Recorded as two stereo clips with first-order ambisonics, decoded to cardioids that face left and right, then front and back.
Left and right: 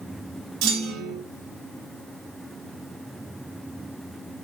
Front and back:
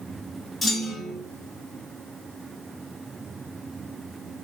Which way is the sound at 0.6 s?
80° right.